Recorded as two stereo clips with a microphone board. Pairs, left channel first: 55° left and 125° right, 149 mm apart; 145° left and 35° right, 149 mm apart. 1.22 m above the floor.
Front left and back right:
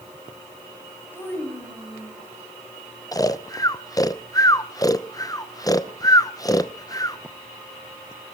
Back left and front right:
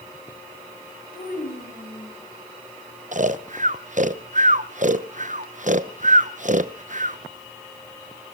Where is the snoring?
10° right, 0.7 m.